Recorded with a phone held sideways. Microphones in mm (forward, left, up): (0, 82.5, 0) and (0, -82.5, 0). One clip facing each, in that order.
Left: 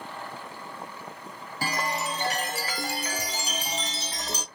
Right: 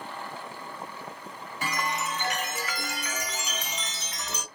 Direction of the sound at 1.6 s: 30° left (ahead or behind).